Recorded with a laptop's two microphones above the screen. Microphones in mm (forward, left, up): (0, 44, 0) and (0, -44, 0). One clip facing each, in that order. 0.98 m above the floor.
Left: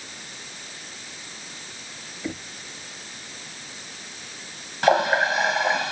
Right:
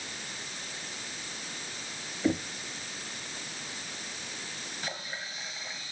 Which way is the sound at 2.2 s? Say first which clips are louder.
Right 5 dB; 20° right (ahead or behind).